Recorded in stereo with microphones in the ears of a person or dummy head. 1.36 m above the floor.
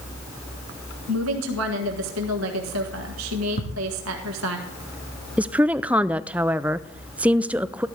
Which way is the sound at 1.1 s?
80° right.